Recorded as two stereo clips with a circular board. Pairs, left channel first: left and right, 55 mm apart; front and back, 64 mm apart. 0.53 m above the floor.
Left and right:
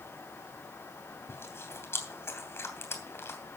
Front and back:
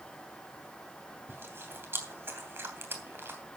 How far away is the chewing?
About 3 m.